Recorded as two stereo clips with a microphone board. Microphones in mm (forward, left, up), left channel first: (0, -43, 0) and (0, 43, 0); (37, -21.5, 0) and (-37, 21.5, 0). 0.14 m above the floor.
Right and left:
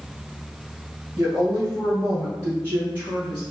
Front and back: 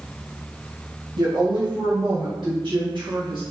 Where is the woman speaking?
150° left, 2.0 m; by 3.4 s 160° left, 3.5 m.